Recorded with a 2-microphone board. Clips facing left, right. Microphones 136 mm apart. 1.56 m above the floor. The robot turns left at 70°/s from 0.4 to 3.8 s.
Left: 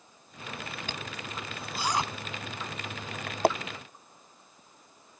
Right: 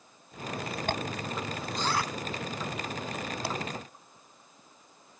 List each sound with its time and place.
0.9 s a zipper: 55° right (ahead or behind); by 3.5 s 50° left (ahead or behind)